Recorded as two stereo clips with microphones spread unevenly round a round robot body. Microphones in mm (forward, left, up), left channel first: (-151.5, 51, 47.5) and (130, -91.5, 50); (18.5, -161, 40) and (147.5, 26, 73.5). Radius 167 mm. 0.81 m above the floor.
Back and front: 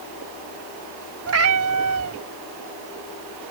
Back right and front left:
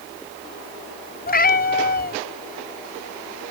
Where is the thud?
I don't hear a thud.